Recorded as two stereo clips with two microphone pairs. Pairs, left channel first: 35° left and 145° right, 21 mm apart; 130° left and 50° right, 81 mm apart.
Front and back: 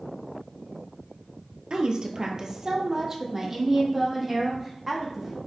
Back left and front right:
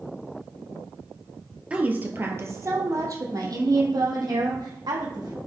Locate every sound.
1.7 s a woman speaking: 120° right, 2.0 m; by 5.4 s 75° right, 5.5 m